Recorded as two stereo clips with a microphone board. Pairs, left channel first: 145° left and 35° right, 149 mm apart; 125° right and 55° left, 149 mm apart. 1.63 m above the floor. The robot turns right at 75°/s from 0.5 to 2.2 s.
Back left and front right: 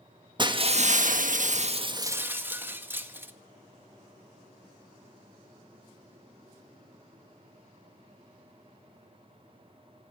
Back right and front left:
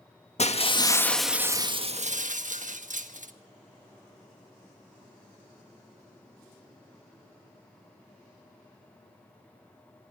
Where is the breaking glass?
90° right, 1.5 m; by 3.3 s 40° left, 1.5 m.